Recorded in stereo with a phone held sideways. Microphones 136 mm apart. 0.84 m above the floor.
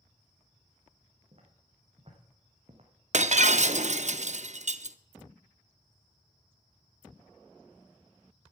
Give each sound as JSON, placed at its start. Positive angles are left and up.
{"t": 1.3, "sound": "footsteps", "side_deg": -45, "distance_m": 3.5}
{"t": 3.1, "sound": "breaking glass", "side_deg": -60, "distance_m": 0.5}